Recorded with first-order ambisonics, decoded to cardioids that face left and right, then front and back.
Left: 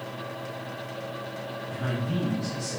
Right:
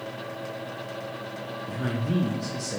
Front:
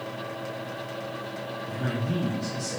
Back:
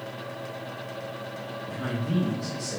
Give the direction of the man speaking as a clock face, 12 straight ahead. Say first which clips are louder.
Right 2 dB, even; 3 o'clock.